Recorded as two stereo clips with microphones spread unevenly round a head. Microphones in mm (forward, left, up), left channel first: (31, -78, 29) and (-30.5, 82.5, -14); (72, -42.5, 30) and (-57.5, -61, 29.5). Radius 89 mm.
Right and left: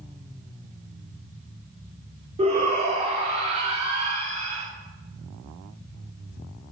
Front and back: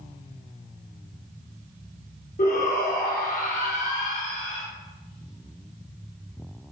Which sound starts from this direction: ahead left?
A shout, at 2.4 s.